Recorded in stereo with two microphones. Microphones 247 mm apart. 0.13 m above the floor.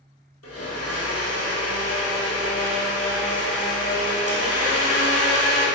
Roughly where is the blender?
Left.